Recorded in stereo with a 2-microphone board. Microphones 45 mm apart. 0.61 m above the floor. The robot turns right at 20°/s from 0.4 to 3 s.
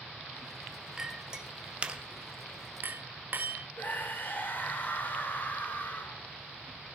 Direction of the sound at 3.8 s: 50° left (ahead or behind).